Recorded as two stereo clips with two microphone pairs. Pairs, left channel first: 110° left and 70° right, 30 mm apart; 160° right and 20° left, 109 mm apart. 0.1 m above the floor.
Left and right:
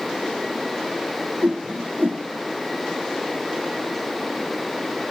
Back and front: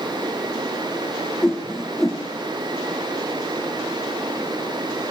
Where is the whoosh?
70° right, 1.3 m.